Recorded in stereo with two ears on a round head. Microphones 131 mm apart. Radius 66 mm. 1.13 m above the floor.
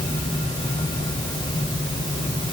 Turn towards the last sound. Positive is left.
No sound to turn to.